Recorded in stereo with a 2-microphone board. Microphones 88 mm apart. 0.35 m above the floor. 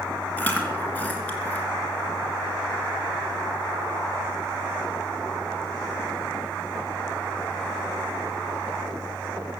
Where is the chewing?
20° left (ahead or behind), 3 m.